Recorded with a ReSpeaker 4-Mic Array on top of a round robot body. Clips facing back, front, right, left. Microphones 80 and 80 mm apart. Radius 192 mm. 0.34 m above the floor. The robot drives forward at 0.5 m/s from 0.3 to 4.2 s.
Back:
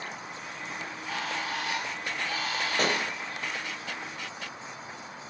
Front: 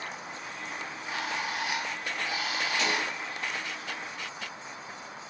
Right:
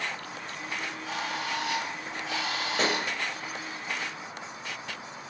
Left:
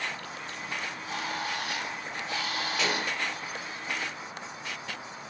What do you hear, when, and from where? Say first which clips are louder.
0.8 s a bird: back 1 dB, right 2 dB; 70° right, 8.5 m; by 3.8 s 80° right, 8 m
2.8 s a pop: back 3 dB, right 3 dB; 140° right, 2.5 m